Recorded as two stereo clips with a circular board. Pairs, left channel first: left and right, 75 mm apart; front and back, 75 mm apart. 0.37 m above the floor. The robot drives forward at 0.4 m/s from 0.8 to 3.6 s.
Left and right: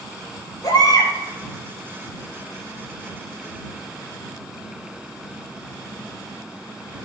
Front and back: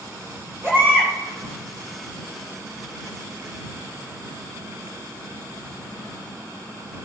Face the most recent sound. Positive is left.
turn(degrees=130)